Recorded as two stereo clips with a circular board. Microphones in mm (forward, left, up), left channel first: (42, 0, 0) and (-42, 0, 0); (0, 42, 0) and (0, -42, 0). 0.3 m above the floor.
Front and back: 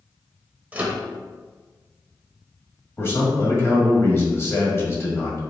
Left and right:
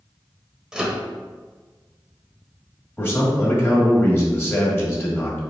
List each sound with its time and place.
0.7 s a microwave: 155° right, 0.8 m
3.0 s a man speaking: 40° left, 1.6 m